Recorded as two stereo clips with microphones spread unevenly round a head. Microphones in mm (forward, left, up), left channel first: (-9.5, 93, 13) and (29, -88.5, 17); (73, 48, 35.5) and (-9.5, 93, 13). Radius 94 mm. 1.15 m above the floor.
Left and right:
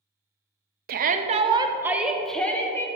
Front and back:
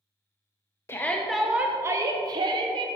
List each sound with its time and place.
0.9 s a shout: 105° right, 0.7 m; by 2.9 s 175° left, 1.1 m